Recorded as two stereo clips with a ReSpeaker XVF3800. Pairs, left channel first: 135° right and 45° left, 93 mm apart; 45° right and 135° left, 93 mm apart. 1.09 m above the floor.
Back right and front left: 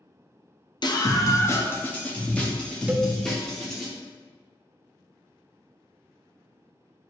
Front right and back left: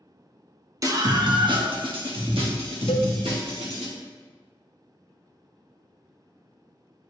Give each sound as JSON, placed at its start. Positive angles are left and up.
{"t": 0.8, "sound": "a scream", "azimuth_deg": -170, "distance_m": 1.0}
{"t": 2.9, "sound": "a cowbell", "azimuth_deg": -30, "distance_m": 0.6}